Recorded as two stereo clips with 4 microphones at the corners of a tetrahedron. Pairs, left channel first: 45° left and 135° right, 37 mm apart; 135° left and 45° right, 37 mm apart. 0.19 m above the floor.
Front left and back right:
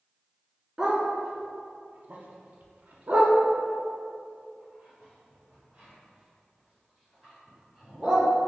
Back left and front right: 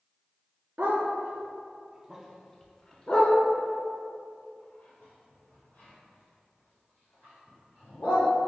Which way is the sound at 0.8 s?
60° right.